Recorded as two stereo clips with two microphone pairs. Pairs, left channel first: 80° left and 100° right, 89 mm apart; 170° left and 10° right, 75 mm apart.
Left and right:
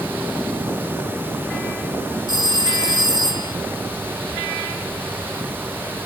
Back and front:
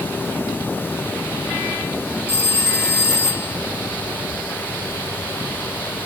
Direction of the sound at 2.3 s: 135° right.